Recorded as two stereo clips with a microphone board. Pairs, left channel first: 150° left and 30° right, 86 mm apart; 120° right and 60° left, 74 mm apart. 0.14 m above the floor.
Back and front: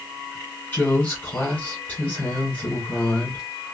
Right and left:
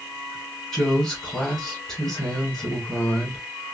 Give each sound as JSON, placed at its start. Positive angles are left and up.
{"t": 0.7, "sound": "a woman speaking", "azimuth_deg": 170, "distance_m": 1.6}